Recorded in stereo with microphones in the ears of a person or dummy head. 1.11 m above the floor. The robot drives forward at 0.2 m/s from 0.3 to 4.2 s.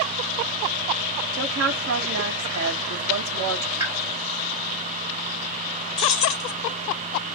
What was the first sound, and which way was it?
A woman speaking, 70° right (ahead or behind).